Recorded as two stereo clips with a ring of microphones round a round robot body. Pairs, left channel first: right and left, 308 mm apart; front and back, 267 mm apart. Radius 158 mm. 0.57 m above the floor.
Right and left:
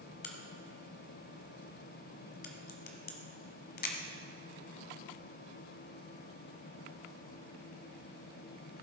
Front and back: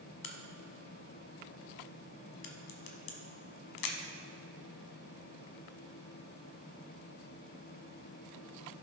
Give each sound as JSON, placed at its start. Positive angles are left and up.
{"t": 0.2, "sound": "a crack", "azimuth_deg": -30, "distance_m": 1.1}